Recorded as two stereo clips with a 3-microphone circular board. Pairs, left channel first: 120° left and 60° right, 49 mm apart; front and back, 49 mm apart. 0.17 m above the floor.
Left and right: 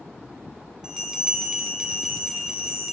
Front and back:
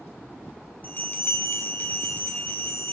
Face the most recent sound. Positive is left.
turn(degrees=10)